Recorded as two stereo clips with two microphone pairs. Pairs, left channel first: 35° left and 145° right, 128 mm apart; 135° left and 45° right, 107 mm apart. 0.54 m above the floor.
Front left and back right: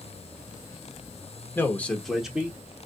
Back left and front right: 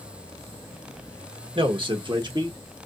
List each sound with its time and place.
1.6 s a man speaking: 35° right, 1.2 m; by 2.6 s 80° right, 1.0 m